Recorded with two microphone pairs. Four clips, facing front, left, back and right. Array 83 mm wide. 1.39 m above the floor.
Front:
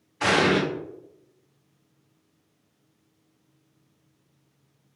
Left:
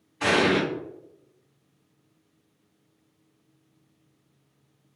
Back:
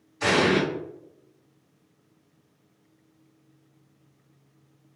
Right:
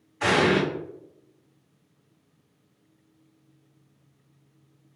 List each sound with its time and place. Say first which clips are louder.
0.2 s an explosion: right 1 dB, even; 10° left, 1.8 m